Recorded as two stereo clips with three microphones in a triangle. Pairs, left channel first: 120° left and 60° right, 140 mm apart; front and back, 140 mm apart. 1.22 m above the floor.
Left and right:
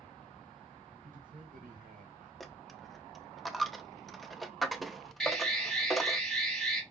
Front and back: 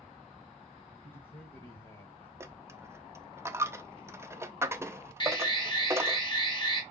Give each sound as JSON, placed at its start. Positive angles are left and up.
{"t": 1.0, "sound": "a man speaking", "azimuth_deg": -55, "distance_m": 1.0}
{"t": 2.4, "sound": "a dropped coin", "azimuth_deg": -150, "distance_m": 0.5}
{"t": 5.2, "sound": "an alarm", "azimuth_deg": 35, "distance_m": 1.6}